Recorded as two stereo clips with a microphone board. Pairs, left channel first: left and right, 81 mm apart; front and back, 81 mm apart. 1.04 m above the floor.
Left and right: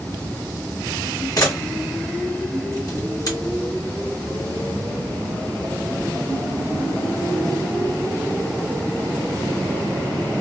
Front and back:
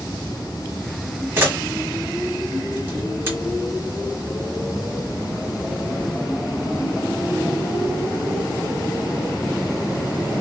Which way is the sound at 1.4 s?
125° left.